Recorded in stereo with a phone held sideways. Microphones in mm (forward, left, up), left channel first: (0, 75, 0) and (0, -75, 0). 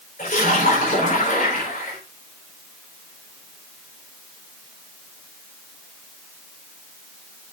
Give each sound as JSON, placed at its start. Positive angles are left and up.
{"t": 0.2, "sound": "a splash", "side_deg": 60, "distance_m": 5.0}